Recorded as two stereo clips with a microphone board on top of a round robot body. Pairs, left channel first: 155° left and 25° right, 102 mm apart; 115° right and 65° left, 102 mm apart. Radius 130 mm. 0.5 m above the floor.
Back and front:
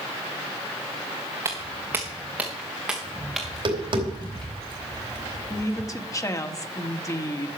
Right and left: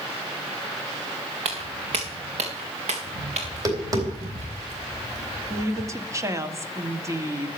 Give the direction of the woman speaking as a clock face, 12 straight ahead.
8 o'clock.